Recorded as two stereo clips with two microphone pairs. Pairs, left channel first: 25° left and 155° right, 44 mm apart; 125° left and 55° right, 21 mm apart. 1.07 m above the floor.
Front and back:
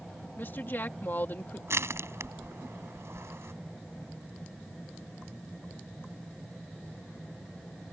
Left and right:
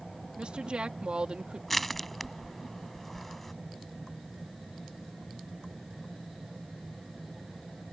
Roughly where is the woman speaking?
Ahead.